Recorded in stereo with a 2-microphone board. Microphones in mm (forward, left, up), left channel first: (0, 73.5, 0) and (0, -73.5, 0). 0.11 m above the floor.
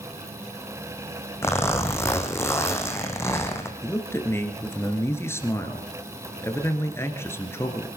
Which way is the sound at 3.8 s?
15° left (ahead or behind).